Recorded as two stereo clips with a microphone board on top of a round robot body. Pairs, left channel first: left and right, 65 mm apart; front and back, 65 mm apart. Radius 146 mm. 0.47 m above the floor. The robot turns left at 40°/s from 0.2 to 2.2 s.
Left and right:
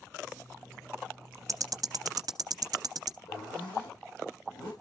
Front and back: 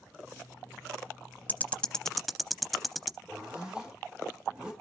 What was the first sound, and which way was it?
Ticking, 60° right.